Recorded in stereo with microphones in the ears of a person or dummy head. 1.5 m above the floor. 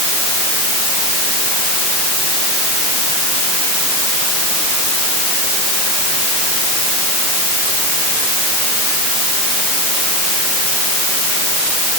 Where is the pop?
No pop in this recording.